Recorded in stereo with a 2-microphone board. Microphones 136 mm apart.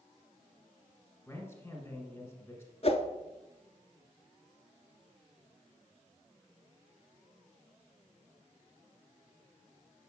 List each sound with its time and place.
1.3 s a man speaking: 15° left (ahead or behind), 1.5 m
2.8 s a whoosh: 50° left (ahead or behind), 0.7 m